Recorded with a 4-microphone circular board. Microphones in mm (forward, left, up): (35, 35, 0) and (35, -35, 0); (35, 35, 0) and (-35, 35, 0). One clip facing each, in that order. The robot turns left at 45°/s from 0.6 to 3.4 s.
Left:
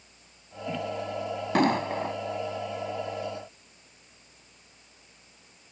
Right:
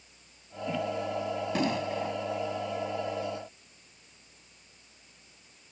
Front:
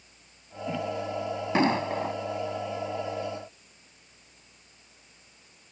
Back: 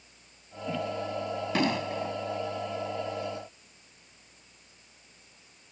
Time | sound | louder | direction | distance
1.6 | an explosion | left 8 dB, front 4 dB | 60° left | ?